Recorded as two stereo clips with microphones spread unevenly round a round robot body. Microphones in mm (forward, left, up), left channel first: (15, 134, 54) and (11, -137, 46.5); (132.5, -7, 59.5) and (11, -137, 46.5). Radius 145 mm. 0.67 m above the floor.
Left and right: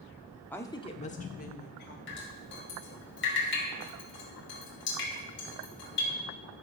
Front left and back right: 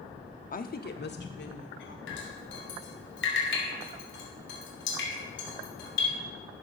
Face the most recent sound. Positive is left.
turn(degrees=40)